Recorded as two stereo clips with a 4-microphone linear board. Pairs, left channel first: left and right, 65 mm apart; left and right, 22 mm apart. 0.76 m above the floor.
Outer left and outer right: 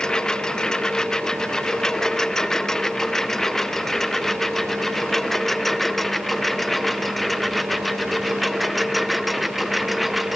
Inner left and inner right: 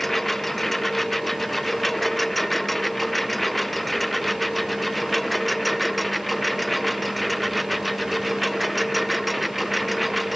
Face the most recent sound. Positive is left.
turn(degrees=-5)  # may be behind; listen again after turning